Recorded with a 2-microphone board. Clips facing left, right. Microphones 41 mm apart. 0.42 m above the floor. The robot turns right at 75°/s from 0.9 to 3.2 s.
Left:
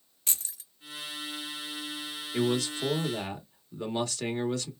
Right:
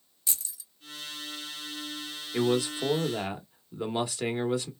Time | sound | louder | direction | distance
0.3 | keys jangling | left 1 dB | 50° left (ahead or behind) | 1.0 m
2.3 | a man speaking | right 2 dB | 20° right (ahead or behind) | 0.9 m